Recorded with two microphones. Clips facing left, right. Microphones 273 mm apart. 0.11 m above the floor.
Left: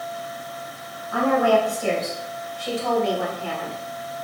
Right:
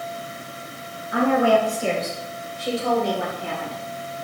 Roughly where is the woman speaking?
Centre.